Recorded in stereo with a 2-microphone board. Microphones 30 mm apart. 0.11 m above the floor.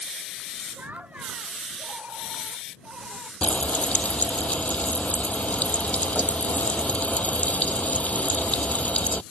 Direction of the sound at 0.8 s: 60° right (ahead or behind).